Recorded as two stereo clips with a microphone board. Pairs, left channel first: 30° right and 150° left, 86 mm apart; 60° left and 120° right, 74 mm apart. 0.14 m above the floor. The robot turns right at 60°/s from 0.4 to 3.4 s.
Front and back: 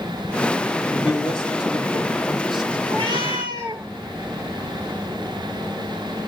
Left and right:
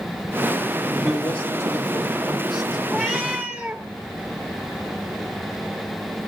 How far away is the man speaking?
About 4.5 m.